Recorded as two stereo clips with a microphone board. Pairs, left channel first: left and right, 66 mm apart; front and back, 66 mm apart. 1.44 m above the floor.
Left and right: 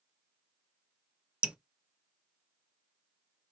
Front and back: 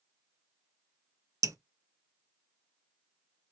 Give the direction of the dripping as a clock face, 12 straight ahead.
5 o'clock.